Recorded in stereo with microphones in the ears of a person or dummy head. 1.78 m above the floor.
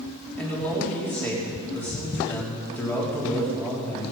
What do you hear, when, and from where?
0.4 s a man speaking: 10° left (ahead or behind), 3.5 m